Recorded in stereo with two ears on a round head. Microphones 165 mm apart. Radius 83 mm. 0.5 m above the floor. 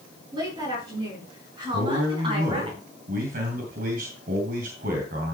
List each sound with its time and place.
0.3 s a woman speaking: 25° right (ahead or behind), 7 m; by 2.7 s 35° right (ahead or behind), 3.5 m
1.7 s a man speaking: 55° right (ahead or behind), 3 m